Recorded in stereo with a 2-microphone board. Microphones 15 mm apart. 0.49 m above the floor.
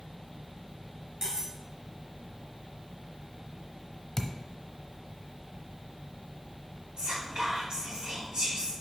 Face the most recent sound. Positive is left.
turn(degrees=-60)  # may be behind; listen again after turning